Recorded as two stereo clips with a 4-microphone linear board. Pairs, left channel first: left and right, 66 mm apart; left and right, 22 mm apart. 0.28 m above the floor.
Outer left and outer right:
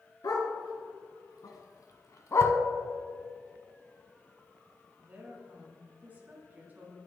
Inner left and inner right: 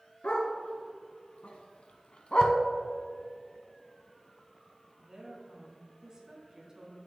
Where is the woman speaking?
25° right (ahead or behind), 3 m.